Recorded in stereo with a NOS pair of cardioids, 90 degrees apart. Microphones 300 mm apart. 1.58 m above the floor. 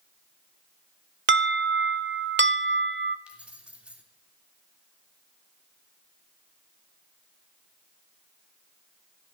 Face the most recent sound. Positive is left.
turn(degrees=-5)